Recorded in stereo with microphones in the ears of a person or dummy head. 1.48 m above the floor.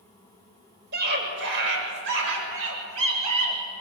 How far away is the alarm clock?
I don't hear an alarm clock.